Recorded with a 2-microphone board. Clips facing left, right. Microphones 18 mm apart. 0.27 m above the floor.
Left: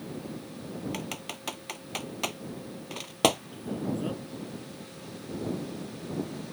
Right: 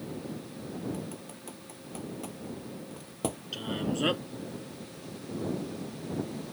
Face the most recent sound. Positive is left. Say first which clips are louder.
# right 1 dB
turn(degrees=-70)  # may be behind; listen again after turning